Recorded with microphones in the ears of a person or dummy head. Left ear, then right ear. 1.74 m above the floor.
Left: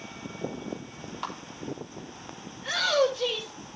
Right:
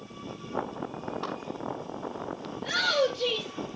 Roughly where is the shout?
Left.